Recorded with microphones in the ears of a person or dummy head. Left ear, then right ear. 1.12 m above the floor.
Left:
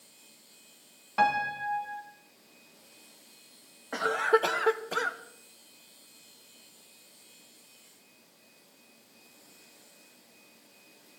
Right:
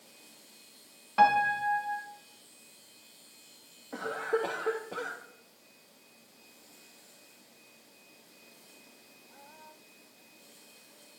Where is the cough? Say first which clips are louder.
Left 7 dB; 55° left (ahead or behind), 1.5 m.